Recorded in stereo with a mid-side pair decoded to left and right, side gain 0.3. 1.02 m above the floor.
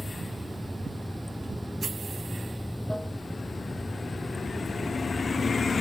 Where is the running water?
10° left.